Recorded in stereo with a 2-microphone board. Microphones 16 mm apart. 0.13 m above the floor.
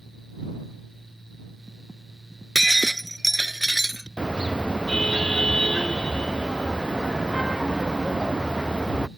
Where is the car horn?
65° left (ahead or behind).